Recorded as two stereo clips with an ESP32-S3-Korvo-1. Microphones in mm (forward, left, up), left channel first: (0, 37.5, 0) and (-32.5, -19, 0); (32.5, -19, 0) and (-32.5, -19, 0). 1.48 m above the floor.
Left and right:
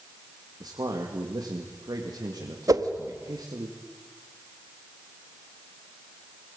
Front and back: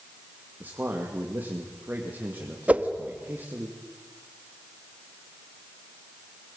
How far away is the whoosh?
About 1.4 m.